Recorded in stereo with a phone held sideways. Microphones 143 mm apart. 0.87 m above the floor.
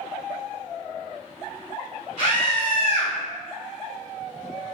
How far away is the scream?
About 1.1 m.